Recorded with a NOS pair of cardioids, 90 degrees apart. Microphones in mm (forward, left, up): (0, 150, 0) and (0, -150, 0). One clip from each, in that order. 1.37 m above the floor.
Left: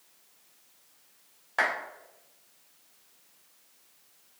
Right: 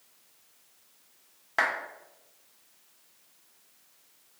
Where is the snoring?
I don't hear snoring.